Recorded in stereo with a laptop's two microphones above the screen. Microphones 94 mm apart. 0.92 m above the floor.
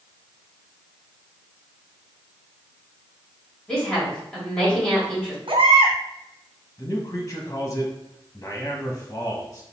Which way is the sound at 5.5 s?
75° right (ahead or behind).